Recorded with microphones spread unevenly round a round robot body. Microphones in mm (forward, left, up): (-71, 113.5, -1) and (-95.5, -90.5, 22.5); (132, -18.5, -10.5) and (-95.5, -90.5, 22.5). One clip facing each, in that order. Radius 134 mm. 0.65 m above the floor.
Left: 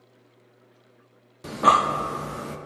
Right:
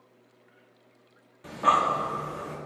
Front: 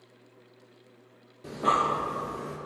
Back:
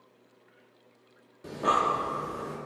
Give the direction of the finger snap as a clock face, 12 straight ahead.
I don't hear a finger snap.